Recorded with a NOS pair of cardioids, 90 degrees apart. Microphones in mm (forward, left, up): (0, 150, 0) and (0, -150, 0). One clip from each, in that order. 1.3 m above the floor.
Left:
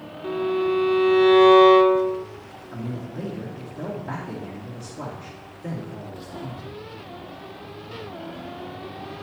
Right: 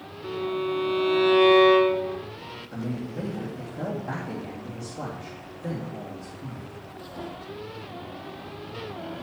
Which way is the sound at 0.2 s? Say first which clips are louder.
Left 5 dB; 5° left.